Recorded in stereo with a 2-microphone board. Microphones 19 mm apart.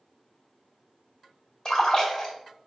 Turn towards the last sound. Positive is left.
turn(degrees=30)  # may be behind; listen again after turning